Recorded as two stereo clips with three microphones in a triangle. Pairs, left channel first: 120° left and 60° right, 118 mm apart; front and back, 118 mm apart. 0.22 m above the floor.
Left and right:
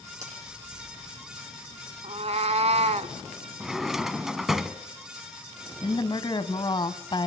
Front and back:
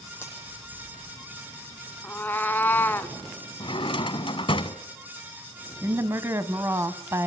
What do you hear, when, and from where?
0.2 s a finger snap: 70° right, 9 m
2.0 s a cat meowing: 70° right, 0.7 m
3.6 s a drawer: 25° left, 0.9 m
5.8 s a woman speaking: 130° left, 1.3 m